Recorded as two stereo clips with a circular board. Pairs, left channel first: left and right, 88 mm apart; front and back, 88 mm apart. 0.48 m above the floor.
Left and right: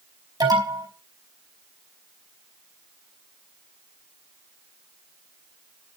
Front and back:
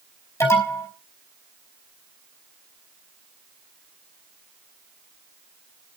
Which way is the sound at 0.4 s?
55° right.